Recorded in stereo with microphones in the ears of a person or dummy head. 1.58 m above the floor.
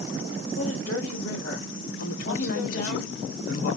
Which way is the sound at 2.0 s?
75° left (ahead or behind).